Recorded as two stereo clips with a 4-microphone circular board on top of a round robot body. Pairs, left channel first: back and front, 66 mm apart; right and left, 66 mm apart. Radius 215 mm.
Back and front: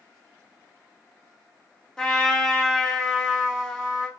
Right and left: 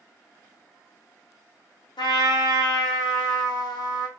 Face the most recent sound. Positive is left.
turn(degrees=-100)